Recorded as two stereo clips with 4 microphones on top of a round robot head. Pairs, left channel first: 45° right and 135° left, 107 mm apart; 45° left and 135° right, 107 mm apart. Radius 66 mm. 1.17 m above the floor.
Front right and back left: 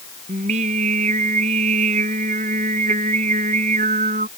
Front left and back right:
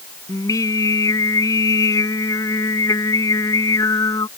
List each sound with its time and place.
0.3 s singing: 105° left